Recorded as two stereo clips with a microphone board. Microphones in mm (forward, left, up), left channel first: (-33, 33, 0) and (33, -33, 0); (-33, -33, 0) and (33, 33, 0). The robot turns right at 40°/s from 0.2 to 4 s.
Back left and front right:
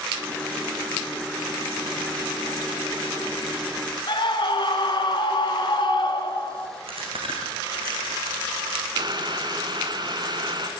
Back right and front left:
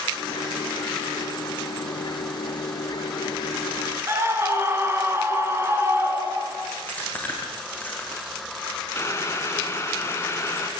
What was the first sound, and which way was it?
A scream, 105° left.